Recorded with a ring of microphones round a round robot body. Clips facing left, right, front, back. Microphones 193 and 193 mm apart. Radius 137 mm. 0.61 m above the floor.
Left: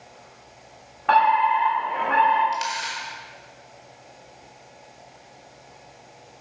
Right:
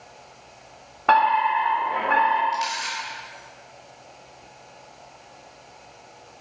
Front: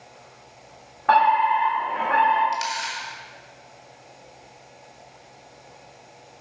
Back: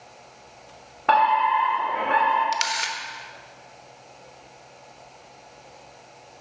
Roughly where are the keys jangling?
No keys jangling in this recording.